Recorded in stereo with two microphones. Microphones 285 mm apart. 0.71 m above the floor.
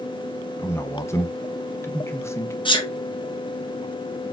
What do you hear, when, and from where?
0.6 s a man speaking: 10° left (ahead or behind), 0.6 m
2.6 s a sneeze: 15° left (ahead or behind), 0.9 m